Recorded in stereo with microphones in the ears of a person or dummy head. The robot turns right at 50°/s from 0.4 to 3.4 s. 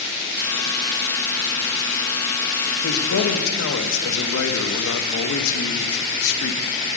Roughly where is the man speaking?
Left.